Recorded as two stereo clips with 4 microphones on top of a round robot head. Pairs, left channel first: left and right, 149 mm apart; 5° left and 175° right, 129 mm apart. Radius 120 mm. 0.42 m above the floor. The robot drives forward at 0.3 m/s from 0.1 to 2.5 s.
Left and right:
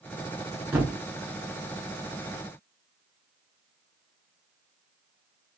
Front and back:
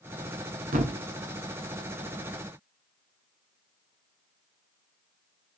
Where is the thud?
170° right, 0.6 m; by 1.0 s 175° right, 0.7 m.